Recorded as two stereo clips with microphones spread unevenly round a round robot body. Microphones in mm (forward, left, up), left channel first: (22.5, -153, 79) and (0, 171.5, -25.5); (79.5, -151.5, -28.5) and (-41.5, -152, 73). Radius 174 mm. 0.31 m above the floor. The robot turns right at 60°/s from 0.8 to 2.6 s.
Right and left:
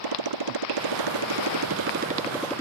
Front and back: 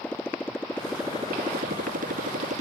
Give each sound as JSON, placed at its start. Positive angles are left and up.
{"t": 0.0, "sound": "a motorcycle", "azimuth_deg": 85}